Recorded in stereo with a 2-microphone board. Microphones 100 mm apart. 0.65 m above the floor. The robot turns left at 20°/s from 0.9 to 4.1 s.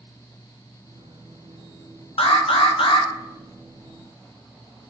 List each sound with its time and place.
2.2 s an alarm: 70° left (ahead or behind), 0.5 m; by 3.1 s 60° left (ahead or behind), 0.5 m